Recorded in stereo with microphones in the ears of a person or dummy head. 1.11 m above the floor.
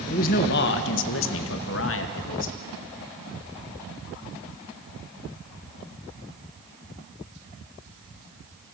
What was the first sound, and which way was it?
A man speaking, 40° left (ahead or behind).